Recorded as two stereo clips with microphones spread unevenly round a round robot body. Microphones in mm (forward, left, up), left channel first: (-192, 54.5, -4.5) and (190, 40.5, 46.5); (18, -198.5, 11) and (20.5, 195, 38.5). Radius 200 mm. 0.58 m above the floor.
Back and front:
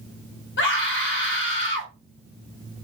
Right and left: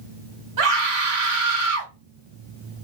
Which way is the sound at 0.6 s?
125° left.